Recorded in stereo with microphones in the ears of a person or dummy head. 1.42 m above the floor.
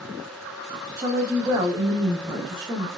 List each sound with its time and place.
1.0 s a woman speaking: 20° right (ahead or behind), 1.0 m